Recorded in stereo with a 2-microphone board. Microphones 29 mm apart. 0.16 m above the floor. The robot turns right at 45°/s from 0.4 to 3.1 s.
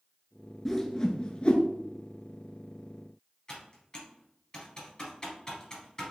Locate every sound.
0.7 s a whoosh: 15° left (ahead or behind), 0.7 m; by 1.6 s 50° left (ahead or behind), 0.7 m
3.5 s typing on a keyboard: 25° left (ahead or behind), 2 m